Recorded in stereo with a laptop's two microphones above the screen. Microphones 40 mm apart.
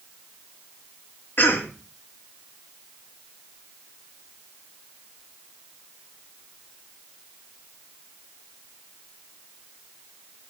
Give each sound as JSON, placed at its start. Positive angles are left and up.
{"t": 1.4, "sound": "a cough", "side_deg": 55, "distance_m": 2.0}